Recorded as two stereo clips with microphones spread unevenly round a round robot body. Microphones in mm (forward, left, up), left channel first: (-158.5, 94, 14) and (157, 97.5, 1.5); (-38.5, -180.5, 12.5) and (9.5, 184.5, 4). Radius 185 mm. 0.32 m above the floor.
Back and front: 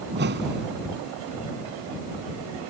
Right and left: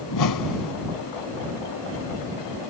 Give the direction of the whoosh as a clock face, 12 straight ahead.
2 o'clock.